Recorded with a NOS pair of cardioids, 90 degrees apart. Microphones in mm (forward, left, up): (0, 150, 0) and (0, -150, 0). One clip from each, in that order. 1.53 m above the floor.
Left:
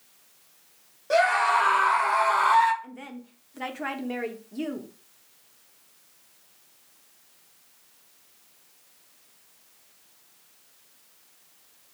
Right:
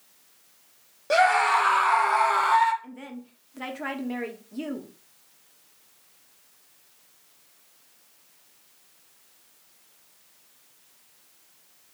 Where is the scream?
30° right, 1.5 m; by 2.7 s 10° left, 0.9 m.